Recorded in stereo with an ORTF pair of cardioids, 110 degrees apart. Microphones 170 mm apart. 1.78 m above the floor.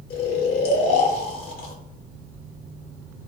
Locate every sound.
0.1 s snoring: 65° left, 1.0 m